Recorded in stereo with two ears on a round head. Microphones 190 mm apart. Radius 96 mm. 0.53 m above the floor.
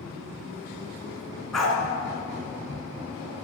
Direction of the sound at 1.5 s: Centre (ahead or behind).